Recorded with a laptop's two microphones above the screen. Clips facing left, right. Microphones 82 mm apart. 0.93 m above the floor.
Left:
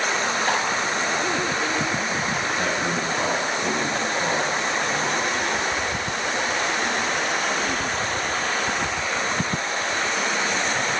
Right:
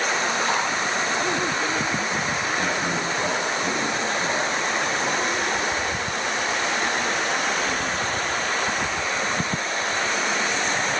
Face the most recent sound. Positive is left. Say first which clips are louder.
# even
turn(degrees=40)  # may be behind; listen again after turning